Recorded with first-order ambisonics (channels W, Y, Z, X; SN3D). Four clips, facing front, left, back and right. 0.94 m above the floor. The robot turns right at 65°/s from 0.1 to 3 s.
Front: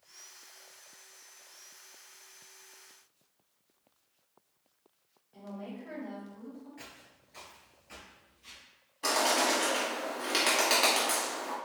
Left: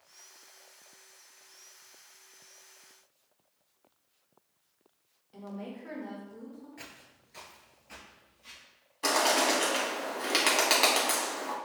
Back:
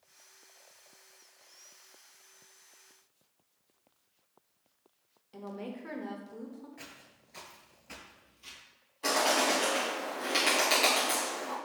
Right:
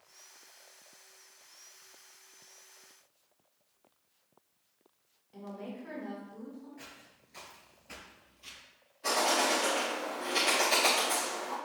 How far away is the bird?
About 1.8 m.